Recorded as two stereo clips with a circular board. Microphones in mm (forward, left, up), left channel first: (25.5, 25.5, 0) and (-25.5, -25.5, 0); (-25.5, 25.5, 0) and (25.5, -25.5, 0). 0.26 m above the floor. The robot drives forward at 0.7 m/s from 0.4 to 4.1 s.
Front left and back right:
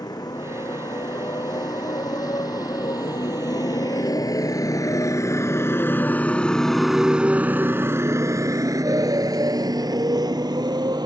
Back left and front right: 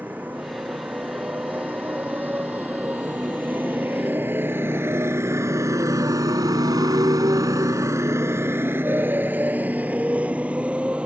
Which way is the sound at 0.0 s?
20° left.